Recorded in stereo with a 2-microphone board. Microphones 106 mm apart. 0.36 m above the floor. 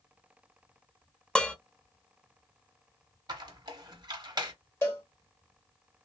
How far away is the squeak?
About 0.9 m.